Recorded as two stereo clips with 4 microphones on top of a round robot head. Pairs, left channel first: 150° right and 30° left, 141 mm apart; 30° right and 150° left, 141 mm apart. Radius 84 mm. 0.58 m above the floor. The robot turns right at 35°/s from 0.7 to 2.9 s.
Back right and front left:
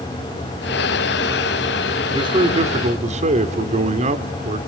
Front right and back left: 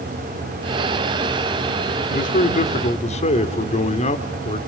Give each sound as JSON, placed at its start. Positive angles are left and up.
{"t": 2.1, "sound": "a man speaking", "azimuth_deg": -25, "distance_m": 1.8}